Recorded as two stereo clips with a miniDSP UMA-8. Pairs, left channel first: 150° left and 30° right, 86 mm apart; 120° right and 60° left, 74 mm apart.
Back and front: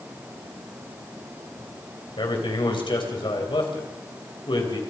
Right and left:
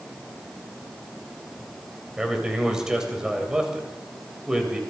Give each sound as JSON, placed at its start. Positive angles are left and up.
{"t": 2.2, "sound": "a man speaking", "azimuth_deg": 140, "distance_m": 3.5}